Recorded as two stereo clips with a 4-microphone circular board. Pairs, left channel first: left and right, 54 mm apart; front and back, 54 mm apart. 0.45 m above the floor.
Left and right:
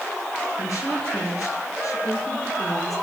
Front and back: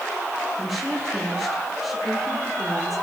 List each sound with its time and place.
0.6 s a woman speaking: 90° left, 8 m